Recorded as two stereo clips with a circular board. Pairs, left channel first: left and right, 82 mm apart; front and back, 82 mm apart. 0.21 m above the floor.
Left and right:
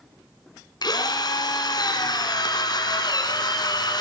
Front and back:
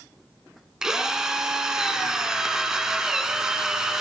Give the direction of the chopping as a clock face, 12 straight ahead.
I don't hear chopping.